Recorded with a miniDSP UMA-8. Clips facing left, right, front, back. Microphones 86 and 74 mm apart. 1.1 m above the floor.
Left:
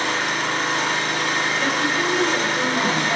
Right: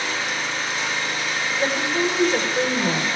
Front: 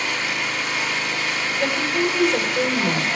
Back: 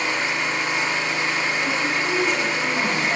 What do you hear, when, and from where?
0.0 s an engine running: 115° left, 4.5 m
1.6 s a woman speaking: 35° right, 4.5 m